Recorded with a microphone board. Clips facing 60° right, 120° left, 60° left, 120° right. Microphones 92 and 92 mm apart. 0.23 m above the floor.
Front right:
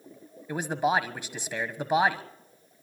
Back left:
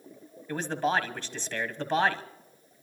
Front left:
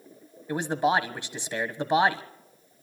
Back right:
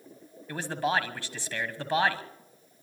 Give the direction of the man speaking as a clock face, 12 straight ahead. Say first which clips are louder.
Front right 2 dB, front left 4 dB; 12 o'clock.